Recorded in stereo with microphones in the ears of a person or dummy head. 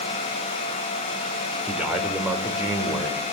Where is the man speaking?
5° right (ahead or behind), 4 m; by 3.2 s 15° right (ahead or behind), 5.5 m.